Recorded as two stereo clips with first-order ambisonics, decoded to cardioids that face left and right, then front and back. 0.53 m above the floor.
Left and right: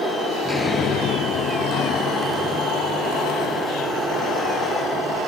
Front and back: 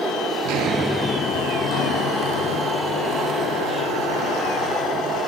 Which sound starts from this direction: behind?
Footsteps, at 0.5 s.